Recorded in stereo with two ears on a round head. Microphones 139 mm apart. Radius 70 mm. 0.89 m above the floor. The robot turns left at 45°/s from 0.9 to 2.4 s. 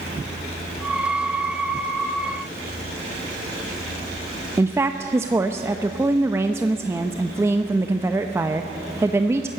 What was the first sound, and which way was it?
A woman speaking, 15° right (ahead or behind).